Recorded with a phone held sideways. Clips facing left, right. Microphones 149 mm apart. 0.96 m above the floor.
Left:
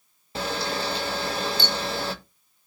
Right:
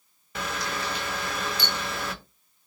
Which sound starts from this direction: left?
A camera shutter, at 0.3 s.